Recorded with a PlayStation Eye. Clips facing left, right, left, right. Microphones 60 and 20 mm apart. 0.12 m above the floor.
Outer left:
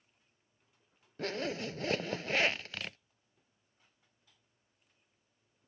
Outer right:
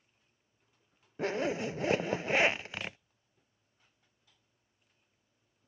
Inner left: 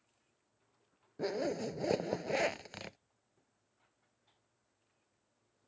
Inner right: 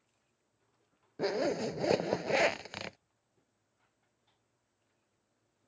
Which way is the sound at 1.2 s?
20° right (ahead or behind).